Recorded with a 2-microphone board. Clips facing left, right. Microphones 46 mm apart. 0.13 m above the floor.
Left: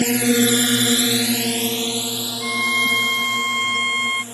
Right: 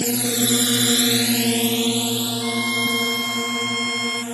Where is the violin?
25° left (ahead or behind).